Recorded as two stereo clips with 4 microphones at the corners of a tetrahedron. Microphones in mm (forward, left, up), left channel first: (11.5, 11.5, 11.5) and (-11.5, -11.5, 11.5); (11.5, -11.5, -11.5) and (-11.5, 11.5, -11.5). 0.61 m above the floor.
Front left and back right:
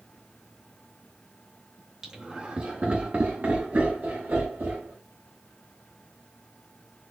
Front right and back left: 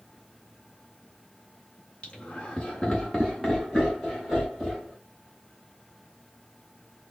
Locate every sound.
2.0 s laughter: 70° right, 0.9 m; by 4.9 s 150° right, 2.5 m